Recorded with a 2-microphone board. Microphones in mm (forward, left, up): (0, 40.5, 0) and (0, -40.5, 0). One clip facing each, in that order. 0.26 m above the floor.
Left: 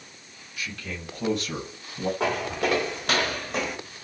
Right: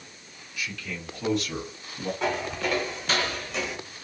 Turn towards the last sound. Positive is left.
turn(degrees=40)  # may be behind; listen again after turning